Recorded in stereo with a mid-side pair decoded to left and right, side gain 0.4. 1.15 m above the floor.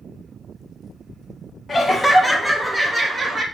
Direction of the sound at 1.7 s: 35° left.